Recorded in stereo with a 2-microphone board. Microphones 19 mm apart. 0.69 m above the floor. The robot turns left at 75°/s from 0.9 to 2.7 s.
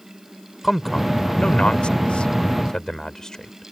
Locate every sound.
0.6 s a man speaking: 10° left (ahead or behind); by 3.7 s 35° left (ahead or behind)